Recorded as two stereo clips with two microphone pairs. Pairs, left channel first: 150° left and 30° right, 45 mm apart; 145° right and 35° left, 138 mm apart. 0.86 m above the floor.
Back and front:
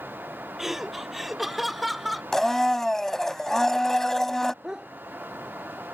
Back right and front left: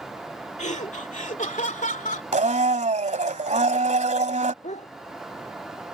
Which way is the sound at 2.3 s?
70° left.